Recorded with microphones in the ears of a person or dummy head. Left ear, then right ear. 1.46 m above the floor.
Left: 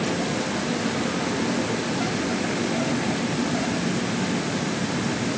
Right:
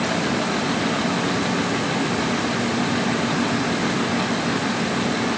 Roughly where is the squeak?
No squeak in this recording.